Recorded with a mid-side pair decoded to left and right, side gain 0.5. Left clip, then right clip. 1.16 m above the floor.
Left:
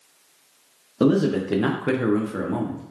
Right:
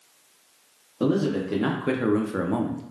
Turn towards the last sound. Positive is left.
turn(degrees=-40)